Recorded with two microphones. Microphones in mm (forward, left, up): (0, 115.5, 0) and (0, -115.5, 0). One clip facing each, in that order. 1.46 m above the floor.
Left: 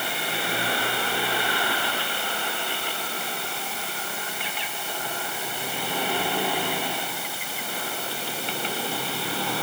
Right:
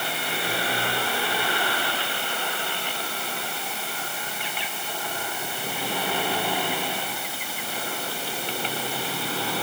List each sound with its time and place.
Only background noise.